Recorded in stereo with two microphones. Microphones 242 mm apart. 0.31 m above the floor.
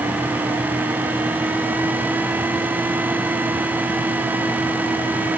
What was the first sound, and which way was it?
Only background noise.